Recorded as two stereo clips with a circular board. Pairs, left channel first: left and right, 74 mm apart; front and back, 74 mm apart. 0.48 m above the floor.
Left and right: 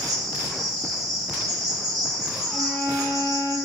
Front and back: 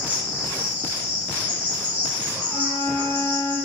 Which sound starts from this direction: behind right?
An insect, at 0.0 s.